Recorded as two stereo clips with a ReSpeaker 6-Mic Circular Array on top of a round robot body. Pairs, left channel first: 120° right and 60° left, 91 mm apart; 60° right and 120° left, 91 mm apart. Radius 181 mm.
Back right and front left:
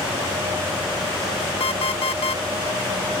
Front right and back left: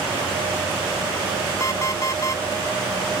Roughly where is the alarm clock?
Behind right.